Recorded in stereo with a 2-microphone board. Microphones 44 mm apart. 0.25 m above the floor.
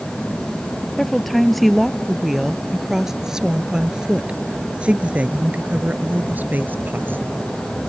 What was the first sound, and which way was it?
A woman speaking, 5° left (ahead or behind).